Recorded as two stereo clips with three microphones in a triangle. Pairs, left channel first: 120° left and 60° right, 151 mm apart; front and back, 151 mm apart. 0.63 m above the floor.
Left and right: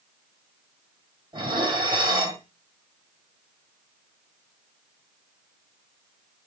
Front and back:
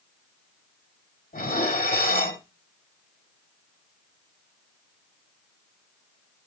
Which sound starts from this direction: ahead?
Dishes clattering, at 1.3 s.